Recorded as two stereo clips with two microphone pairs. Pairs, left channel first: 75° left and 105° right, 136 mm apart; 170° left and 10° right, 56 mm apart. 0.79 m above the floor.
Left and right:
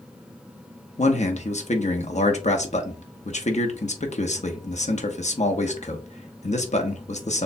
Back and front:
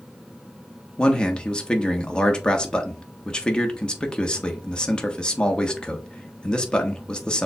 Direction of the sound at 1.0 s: 100° left.